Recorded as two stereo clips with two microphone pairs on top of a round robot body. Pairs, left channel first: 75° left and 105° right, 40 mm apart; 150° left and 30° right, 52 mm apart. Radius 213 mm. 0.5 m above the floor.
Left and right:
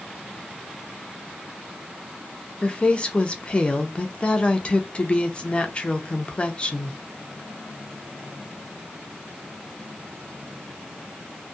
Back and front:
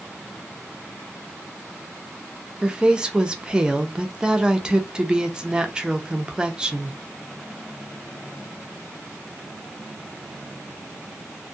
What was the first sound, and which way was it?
A woman speaking, 30° left.